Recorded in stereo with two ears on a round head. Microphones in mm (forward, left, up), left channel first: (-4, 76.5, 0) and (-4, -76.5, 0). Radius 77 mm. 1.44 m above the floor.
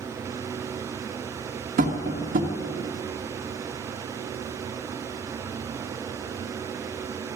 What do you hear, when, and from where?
1.8 s tapping: 50° right (ahead or behind), 1.6 m